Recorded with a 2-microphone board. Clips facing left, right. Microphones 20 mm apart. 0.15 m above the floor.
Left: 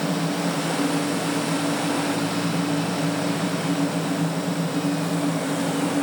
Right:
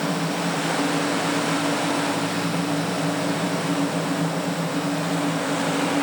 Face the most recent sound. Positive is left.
No sound to turn to.